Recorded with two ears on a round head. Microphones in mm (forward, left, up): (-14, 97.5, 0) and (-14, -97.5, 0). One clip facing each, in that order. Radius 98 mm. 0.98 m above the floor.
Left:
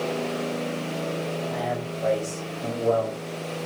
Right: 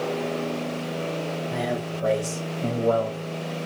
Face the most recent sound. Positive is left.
turn(degrees=-25)  # may be behind; listen again after turning